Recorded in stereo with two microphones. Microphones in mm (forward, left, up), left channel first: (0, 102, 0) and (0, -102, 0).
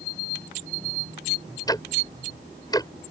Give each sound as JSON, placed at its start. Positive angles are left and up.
{"t": 1.7, "sound": "ticking", "side_deg": 20}